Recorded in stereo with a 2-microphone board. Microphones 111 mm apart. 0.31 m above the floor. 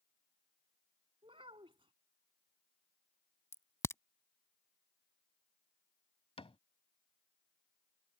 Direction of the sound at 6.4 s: 60° left (ahead or behind).